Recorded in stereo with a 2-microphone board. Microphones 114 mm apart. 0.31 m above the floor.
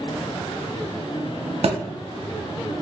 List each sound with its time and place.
1.6 s a thud: 60° right (ahead or behind), 0.6 m